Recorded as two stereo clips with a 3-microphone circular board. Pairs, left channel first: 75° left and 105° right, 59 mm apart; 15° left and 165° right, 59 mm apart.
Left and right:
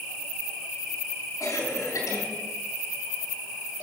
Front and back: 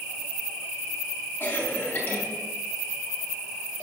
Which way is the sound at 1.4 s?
75° left.